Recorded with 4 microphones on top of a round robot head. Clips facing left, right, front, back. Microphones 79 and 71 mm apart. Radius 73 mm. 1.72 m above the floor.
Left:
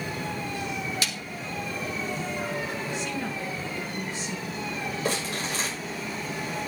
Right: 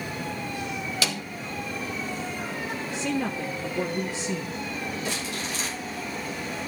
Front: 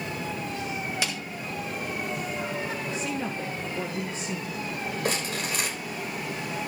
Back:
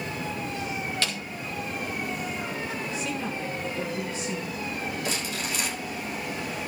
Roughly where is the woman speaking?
Right.